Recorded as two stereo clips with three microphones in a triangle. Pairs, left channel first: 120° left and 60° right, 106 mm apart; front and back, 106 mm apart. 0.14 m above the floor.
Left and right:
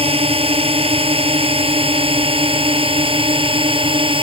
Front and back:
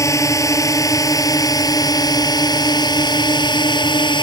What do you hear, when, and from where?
0.0 s a drone: 60° right; by 4.2 s 35° right